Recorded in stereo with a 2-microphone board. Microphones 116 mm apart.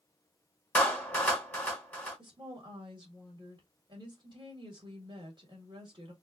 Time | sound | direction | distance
0.8 | a clap | 15° left (ahead or behind) | 1.6 m
2.2 | a woman speaking | 40° right (ahead or behind) | 1.7 m